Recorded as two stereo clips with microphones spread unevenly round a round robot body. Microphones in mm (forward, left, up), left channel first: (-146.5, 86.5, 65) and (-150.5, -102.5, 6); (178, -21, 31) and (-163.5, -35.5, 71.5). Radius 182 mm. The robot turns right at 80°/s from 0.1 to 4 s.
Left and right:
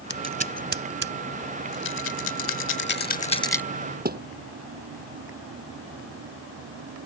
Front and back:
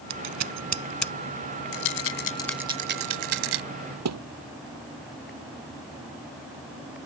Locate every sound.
0.1 s scissors: 160° right; by 1.1 s 75° right
1.7 s a rattle: 25° left; by 3.6 s 175° left
4.0 s a thud: 130° right